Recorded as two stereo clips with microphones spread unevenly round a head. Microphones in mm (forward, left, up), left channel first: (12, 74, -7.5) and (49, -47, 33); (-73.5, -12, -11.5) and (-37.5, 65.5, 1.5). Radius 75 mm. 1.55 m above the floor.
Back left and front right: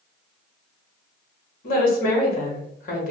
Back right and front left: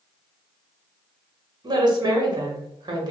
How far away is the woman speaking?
About 1.1 m.